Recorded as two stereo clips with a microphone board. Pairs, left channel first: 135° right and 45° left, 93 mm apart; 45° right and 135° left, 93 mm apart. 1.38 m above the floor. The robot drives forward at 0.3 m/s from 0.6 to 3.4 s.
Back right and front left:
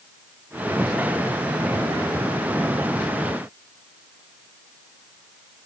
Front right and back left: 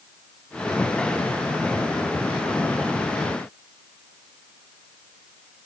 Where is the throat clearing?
I don't hear throat clearing.